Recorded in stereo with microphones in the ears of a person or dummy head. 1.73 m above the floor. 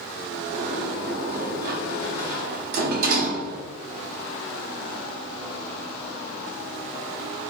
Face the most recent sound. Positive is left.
turn(degrees=-55)  # may be behind; listen again after turning